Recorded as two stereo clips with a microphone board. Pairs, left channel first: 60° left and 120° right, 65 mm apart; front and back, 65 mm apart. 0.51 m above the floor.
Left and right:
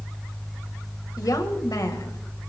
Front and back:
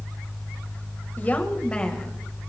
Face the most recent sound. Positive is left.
turn(degrees=85)